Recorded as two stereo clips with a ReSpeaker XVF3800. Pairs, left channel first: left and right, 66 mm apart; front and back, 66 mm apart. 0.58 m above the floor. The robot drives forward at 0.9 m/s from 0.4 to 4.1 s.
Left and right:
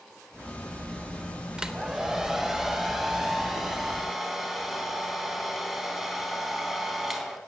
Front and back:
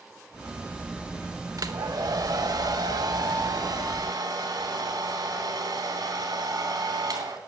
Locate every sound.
1.6 s a hair dryer: 170° right, 1.1 m; by 7.4 s 175° right, 3.5 m